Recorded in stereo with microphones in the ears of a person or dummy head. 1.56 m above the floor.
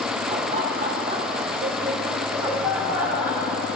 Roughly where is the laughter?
Right.